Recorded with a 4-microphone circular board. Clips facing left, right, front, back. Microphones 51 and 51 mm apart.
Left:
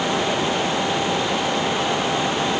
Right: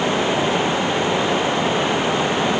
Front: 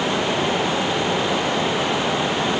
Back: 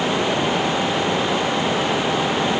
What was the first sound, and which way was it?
Only background noise.